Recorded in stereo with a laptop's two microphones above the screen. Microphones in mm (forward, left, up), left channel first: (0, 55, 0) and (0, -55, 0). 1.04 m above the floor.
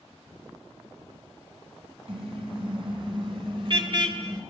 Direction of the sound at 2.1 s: 55° right (ahead or behind).